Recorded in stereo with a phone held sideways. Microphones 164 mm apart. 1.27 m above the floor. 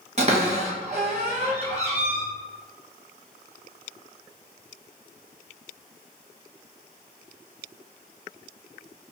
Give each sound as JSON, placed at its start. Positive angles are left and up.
{"t": 0.2, "sound": "a cupboard door", "side_deg": -45, "distance_m": 0.6}